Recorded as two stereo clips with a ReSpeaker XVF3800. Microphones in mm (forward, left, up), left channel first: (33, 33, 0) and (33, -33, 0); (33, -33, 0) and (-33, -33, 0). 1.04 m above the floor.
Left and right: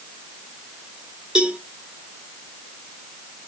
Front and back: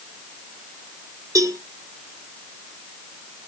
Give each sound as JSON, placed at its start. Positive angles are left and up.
{"t": 1.4, "sound": "a cowbell", "azimuth_deg": -165, "distance_m": 1.3}